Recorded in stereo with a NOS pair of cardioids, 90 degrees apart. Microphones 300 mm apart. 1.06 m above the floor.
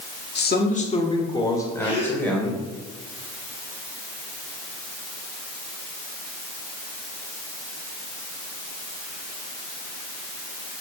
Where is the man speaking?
35° left, 1.7 m; by 2.6 s 5° left, 4.5 m.